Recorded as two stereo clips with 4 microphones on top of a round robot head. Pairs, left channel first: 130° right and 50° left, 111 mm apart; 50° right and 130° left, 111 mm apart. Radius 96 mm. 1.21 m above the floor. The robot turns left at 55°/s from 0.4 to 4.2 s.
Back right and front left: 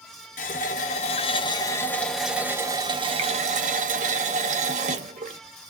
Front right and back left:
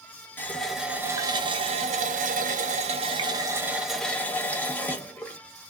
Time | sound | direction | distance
0.4 | a running tap | 120° right | 0.5 m